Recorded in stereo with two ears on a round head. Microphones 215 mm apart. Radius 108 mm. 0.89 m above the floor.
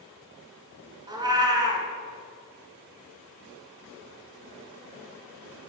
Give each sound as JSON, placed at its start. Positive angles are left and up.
{"t": 1.1, "sound": "a cat meowing", "side_deg": -20, "distance_m": 1.2}